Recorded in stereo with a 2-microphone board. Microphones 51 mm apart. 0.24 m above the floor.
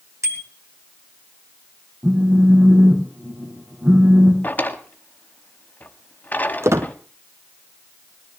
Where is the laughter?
I don't hear laughter.